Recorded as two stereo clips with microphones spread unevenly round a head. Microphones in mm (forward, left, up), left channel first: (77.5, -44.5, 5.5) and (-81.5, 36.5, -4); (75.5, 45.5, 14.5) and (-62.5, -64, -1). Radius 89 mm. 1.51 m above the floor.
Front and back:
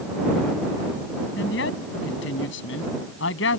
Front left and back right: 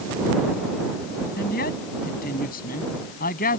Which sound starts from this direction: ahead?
A man speaking, at 1.4 s.